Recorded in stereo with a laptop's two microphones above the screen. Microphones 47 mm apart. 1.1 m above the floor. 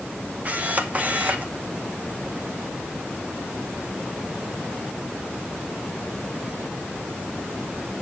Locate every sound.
0.5 s a camera shutter: 35° right (ahead or behind), 0.7 m